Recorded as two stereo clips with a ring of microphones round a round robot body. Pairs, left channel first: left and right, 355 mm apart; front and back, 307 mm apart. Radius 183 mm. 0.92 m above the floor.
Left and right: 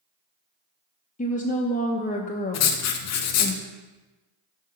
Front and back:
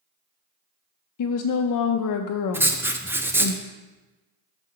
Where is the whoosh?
I don't hear a whoosh.